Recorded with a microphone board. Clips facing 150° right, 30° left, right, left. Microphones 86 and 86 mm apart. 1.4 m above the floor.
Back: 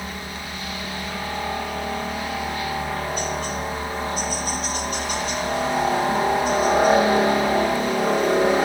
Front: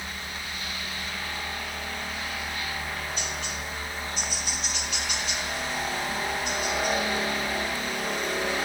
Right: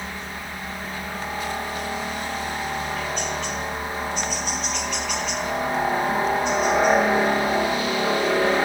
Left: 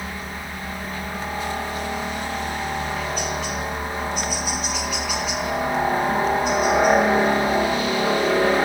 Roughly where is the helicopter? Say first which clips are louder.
Back 5 dB, left 1 dB; behind.